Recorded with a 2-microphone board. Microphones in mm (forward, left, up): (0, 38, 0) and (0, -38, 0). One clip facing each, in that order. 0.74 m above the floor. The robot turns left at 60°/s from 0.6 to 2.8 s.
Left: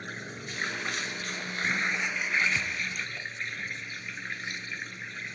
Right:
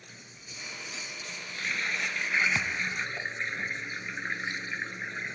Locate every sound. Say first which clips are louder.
0.0 s running water: left 12 dB; 105° left; by 5.3 s 30° right
2.5 s a thud: right 2 dB; 45° right (ahead or behind); by 3.0 s 30° right (ahead or behind)